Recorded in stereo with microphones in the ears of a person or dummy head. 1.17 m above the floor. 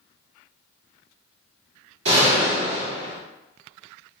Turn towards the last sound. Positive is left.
turn(degrees=-70)  # may be behind; listen again after turning